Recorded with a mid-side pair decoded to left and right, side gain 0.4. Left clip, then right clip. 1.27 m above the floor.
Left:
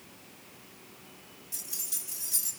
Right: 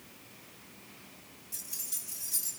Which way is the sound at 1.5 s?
25° left.